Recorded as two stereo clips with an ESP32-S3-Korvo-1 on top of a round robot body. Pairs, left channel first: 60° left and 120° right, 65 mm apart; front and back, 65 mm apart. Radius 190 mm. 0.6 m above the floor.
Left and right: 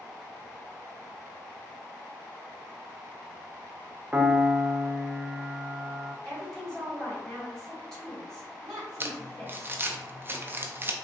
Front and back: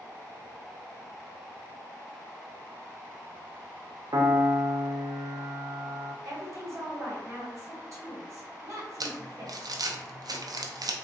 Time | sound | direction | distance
4.1 | a piano | 170° left | 0.5 m
6.2 | a woman speaking | 150° left | 1.7 m
9.0 | crumpling | 175° right | 0.5 m